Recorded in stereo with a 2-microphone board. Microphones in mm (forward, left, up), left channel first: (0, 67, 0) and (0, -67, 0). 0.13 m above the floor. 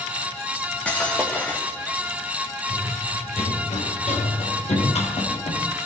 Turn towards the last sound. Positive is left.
turn(degrees=55)  # may be behind; listen again after turning